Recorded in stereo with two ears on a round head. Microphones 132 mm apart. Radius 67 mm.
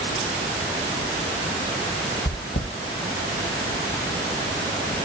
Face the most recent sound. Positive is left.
turn(degrees=70)  # may be behind; listen again after turning